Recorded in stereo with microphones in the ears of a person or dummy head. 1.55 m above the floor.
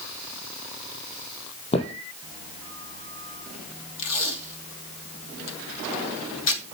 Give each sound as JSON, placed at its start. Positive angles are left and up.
{"t": 1.7, "sound": "footsteps", "side_deg": 35, "distance_m": 4.5}
{"t": 4.0, "sound": "tape being pulled", "side_deg": 80, "distance_m": 3.0}